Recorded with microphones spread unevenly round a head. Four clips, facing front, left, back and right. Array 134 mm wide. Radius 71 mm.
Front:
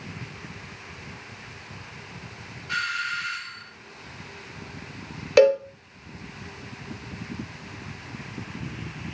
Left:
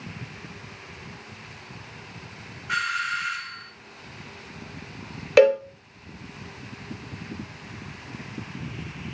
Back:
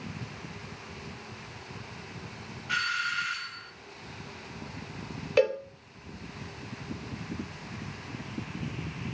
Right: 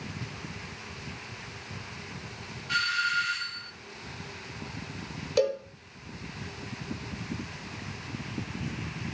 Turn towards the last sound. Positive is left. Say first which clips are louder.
# left 10 dB, front 8 dB
turn(degrees=60)